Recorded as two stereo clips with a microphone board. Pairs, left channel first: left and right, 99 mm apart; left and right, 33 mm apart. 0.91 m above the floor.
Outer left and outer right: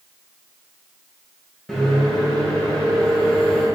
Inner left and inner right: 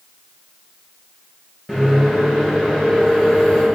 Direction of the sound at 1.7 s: 5° left (ahead or behind).